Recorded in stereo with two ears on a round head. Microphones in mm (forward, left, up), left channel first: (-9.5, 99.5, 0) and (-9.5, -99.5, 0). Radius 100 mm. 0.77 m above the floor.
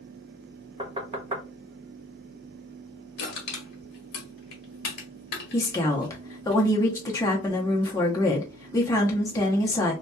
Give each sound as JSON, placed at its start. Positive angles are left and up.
{"t": 0.8, "sound": "knocking", "side_deg": -25, "distance_m": 0.7}
{"t": 3.2, "sound": "crushing", "side_deg": 50, "distance_m": 1.2}
{"t": 5.5, "sound": "a woman speaking", "side_deg": 15, "distance_m": 0.8}